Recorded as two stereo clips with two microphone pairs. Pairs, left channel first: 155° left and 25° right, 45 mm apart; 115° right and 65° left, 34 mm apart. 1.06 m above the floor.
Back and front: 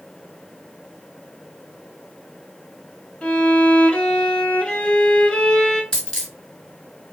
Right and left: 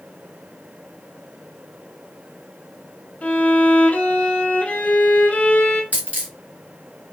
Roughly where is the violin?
Behind right.